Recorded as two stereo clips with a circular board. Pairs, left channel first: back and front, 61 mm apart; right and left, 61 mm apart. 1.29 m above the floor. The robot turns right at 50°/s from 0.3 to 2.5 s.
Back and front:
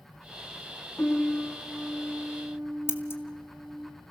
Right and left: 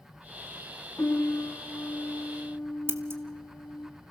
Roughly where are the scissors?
Behind left.